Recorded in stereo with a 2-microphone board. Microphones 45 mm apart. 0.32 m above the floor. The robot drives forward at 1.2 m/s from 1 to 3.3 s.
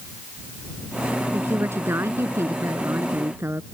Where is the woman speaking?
65° right (ahead or behind); by 3.6 s 70° right (ahead or behind).